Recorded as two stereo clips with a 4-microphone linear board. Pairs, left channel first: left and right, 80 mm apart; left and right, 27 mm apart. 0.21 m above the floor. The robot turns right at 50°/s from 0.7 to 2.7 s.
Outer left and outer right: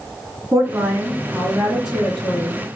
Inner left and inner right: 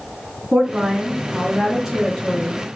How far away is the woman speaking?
About 2.5 m.